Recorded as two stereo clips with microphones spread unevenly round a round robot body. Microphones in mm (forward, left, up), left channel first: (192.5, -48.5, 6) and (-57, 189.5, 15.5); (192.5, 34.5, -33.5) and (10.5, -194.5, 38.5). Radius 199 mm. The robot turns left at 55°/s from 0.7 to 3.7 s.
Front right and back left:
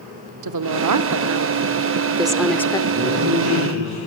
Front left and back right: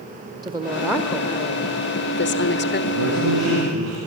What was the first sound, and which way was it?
A woman speaking, 145° left.